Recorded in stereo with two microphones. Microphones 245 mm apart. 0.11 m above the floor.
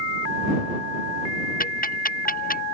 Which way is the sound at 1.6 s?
35° left (ahead or behind).